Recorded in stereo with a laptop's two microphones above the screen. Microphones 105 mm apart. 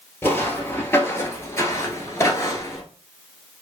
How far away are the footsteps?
About 1.5 m.